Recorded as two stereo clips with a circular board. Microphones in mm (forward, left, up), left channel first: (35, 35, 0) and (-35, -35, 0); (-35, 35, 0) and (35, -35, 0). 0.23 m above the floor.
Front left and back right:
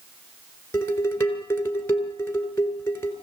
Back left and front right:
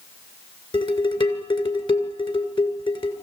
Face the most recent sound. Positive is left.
turn(degrees=110)